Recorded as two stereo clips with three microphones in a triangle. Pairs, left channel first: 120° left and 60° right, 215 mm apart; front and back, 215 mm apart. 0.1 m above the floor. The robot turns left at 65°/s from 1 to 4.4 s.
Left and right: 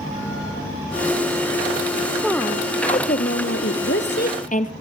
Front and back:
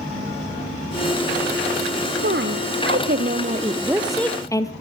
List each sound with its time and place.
2.2 s a woman speaking: 145° right, 2 m; by 4.7 s 75° left, 2 m